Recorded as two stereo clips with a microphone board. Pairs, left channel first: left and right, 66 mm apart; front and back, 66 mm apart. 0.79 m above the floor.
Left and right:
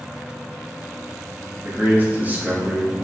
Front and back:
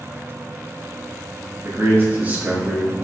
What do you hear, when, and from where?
1.6 s a man speaking: 145° right, 1.2 m; by 3.0 s 60° right, 0.8 m